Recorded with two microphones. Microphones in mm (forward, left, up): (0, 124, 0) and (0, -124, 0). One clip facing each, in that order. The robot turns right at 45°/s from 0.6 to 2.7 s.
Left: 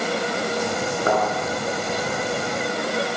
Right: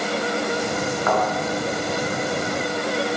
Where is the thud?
30° left (ahead or behind), 9 m; by 1.2 s 35° left (ahead or behind), 9 m.